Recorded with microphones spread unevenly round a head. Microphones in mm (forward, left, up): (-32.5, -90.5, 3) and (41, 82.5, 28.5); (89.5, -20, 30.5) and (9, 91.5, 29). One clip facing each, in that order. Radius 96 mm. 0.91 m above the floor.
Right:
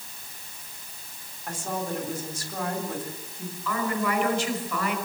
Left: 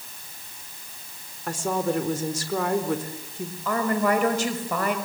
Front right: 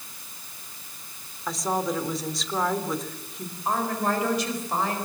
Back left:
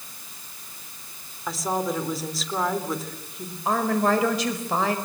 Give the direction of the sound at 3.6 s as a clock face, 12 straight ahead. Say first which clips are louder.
Left 5 dB, back left 4 dB; 8 o'clock.